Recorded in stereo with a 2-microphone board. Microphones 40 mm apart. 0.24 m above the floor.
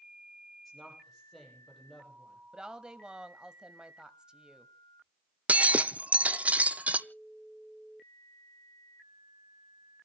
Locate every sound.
0.7 s a woman speaking: centre (ahead or behind), 9.5 m
2.5 s a woman speaking: 20° right (ahead or behind), 1.0 m
5.5 s breaking glass: 35° right (ahead or behind), 0.6 m